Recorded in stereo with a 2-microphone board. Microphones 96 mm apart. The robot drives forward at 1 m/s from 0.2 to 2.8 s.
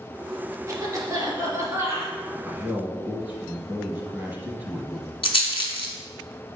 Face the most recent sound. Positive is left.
turn(degrees=65)  # may be behind; listen again after turning